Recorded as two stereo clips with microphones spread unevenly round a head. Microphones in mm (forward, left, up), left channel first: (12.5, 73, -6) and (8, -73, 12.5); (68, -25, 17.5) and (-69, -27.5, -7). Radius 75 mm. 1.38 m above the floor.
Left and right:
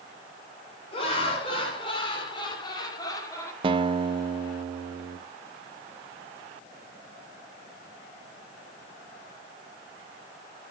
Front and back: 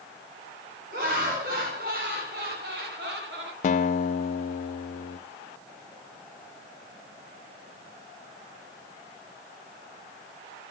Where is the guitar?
35° right, 0.6 m.